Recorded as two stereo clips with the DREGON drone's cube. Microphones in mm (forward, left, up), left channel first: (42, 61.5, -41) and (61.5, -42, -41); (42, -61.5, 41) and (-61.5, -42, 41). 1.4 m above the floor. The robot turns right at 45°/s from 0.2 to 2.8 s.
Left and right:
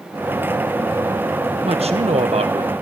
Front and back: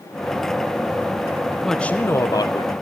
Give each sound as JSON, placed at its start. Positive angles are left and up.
{"t": 1.6, "sound": "a man speaking", "azimuth_deg": -100, "distance_m": 0.8}